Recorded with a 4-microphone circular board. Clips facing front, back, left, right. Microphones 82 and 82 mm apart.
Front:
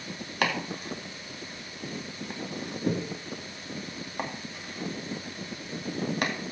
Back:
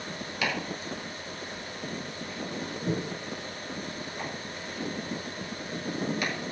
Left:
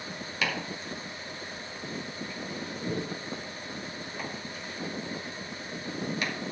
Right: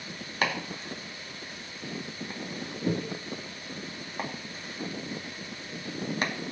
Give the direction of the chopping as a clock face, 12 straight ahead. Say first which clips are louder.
Front 3 dB, right 3 dB; 1 o'clock.